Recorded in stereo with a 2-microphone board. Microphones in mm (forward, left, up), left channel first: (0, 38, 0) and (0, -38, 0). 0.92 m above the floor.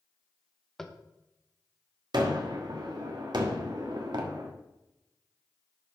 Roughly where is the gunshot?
Right.